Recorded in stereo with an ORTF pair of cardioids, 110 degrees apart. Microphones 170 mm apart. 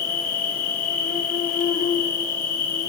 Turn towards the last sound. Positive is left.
turn(degrees=60)